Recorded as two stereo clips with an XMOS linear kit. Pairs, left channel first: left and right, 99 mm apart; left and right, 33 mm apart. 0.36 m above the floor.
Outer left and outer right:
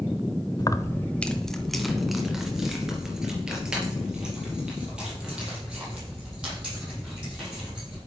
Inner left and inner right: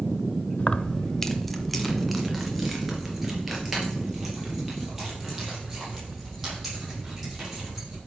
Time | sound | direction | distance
0.6 | keys jangling | 35° left (ahead or behind) | 0.6 m